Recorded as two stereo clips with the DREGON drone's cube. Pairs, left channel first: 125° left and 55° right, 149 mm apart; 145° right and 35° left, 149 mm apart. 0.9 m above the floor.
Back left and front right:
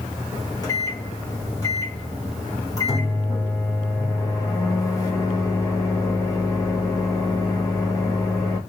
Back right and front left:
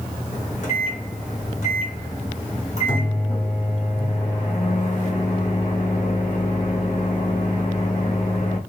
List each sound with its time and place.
0.3 s a microwave: 175° right, 1.1 m